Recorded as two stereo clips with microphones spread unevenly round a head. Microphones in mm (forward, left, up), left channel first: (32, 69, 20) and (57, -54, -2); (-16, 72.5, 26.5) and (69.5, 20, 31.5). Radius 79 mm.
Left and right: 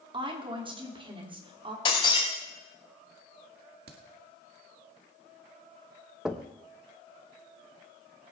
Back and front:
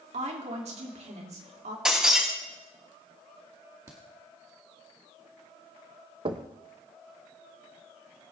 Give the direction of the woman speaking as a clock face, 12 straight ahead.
1 o'clock.